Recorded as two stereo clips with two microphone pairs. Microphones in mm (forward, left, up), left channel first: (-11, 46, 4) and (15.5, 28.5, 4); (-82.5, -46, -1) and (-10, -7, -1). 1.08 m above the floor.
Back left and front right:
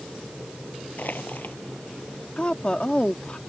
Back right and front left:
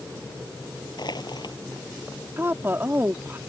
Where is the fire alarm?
I don't hear a fire alarm.